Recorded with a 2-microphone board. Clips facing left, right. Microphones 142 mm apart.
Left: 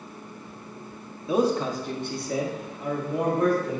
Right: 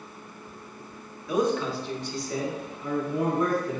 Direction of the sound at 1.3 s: 25° left (ahead or behind).